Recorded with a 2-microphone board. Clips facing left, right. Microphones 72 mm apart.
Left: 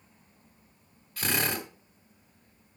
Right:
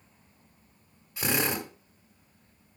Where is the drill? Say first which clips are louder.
Right 1 dB; 20° right (ahead or behind), 1.8 m.